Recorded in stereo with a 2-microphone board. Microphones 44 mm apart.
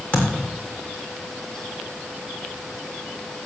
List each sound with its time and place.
0.1 s a thud: 30° left (ahead or behind), 7 m